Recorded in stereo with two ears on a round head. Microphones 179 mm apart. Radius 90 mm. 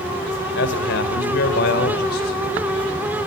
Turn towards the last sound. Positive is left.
turn(degrees=50)  # may be behind; listen again after turning